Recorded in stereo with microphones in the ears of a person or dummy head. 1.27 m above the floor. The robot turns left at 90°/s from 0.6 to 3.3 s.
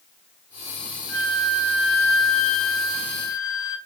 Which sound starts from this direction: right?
A flute, at 1.1 s.